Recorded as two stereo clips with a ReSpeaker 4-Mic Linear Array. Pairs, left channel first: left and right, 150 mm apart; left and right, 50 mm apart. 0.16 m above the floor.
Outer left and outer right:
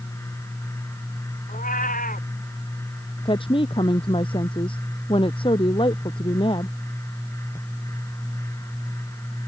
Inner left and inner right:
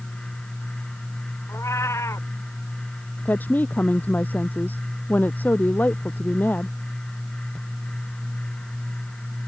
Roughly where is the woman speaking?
Left.